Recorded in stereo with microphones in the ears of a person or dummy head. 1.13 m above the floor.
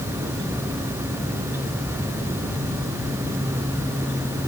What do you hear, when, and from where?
Only background noise.